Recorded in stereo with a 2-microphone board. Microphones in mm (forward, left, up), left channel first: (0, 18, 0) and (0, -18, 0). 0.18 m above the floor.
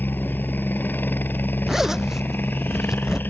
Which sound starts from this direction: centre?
A zipper, at 1.7 s.